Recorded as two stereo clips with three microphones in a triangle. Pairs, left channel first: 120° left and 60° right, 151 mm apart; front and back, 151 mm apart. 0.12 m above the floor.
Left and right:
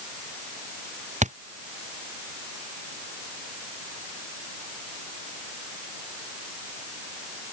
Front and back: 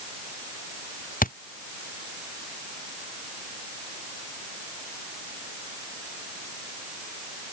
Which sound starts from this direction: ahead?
A thud, at 1.2 s.